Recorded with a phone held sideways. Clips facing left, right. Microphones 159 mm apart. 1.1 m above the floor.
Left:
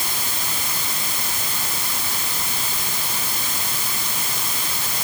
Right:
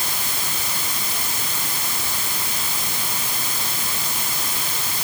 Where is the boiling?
No boiling in this recording.